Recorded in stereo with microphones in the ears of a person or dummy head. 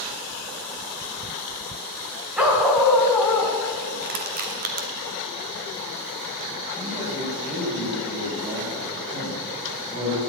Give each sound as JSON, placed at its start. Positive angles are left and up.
{"t": 2.4, "sound": "a dog barking", "side_deg": -5, "distance_m": 1.9}
{"t": 4.0, "sound": "crushing", "side_deg": -45, "distance_m": 1.7}
{"t": 6.8, "sound": "a man speaking", "side_deg": -40, "distance_m": 6.5}